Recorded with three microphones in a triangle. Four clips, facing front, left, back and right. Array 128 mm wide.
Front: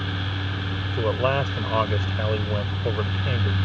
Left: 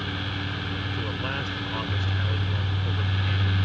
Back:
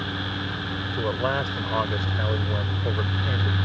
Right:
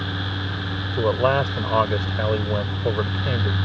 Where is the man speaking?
80° right.